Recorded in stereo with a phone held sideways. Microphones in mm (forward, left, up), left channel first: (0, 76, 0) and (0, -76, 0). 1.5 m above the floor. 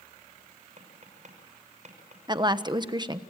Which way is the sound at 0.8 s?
55° right (ahead or behind).